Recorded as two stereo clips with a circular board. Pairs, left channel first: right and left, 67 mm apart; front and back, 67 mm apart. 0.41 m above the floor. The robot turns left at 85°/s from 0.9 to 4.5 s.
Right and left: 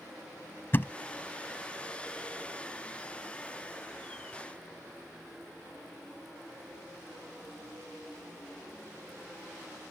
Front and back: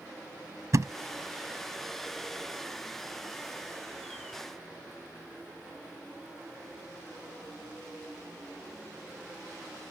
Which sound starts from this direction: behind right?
A thud, at 0.7 s.